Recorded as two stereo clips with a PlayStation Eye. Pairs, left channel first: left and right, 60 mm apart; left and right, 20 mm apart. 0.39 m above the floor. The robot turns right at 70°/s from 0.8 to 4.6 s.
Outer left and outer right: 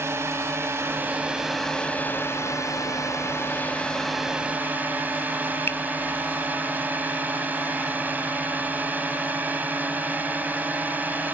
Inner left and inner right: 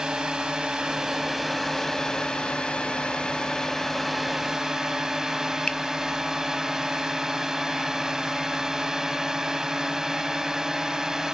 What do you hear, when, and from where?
0.0 s a drone: 55° right; by 11.3 s 145° right
5.7 s a finger snap: 40° left (ahead or behind)